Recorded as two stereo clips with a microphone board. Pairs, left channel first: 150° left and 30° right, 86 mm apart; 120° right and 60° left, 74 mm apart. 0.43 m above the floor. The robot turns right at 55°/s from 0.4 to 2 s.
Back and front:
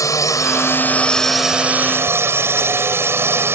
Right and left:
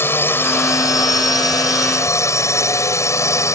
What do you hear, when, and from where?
0.0 s a drone: 170° right; by 3.5 s 85° right